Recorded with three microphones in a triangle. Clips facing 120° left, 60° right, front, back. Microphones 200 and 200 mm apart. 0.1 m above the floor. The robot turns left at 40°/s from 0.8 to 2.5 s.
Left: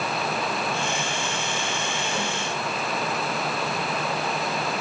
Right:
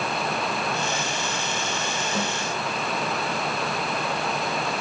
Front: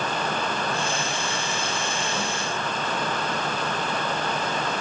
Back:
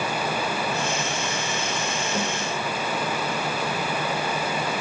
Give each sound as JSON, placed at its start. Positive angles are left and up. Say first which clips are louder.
{"t": 2.1, "sound": "a snare drum", "louder": "right 3 dB, back 5 dB", "azimuth_deg": -130, "distance_m": 6.5}